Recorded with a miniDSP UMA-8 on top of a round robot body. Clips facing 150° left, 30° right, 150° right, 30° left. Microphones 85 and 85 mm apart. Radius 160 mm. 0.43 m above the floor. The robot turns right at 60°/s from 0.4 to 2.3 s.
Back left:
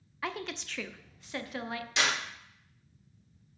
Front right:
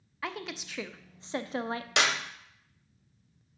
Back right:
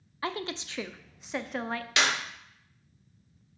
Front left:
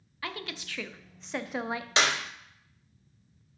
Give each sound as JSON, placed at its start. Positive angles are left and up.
{"t": 0.2, "sound": "a woman speaking", "azimuth_deg": -120, "distance_m": 0.8}
{"t": 2.0, "sound": "a clap", "azimuth_deg": -30, "distance_m": 1.8}